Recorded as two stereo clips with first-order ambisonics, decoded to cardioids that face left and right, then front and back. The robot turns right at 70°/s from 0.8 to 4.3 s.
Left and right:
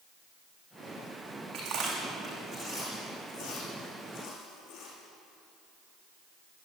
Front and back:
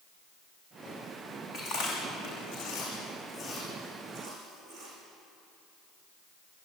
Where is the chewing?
65° right, 8.5 m; by 4.9 s 130° left, 8.5 m.